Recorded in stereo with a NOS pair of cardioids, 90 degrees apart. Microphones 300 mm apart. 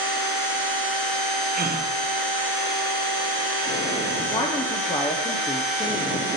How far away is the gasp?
About 1.0 m.